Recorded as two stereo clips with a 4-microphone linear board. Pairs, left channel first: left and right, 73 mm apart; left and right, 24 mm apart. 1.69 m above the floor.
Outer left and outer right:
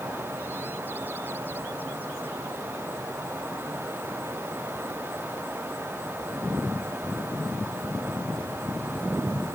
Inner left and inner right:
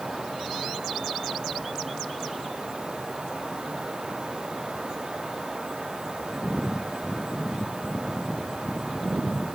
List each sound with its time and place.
Only background noise.